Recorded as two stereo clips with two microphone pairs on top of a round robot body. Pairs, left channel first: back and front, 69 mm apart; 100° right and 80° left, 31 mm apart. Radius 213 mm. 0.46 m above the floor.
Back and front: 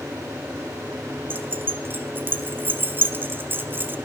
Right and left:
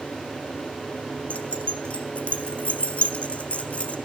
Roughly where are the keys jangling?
Ahead right.